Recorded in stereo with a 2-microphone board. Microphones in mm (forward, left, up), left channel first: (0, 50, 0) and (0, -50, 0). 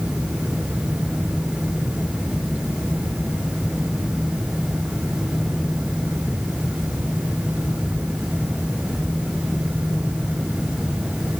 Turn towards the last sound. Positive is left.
No sound to turn to.